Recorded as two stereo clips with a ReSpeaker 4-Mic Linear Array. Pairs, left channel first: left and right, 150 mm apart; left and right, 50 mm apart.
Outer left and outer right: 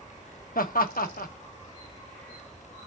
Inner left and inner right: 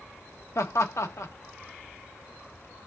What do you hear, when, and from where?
0.6 s laughter: 75° left (ahead or behind), 1.1 m